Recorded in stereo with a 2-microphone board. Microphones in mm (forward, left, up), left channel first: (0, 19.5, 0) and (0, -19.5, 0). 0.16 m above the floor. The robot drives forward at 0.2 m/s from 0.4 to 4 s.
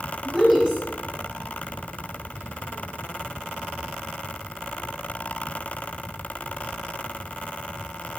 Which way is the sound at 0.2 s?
10° right (ahead or behind).